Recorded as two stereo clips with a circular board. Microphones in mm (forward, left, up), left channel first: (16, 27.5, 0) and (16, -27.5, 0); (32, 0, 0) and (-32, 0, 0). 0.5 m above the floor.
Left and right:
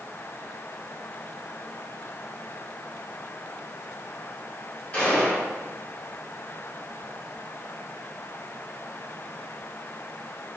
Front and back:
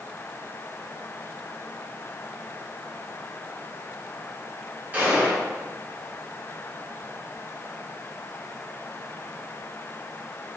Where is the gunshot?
140° left, 1.6 m.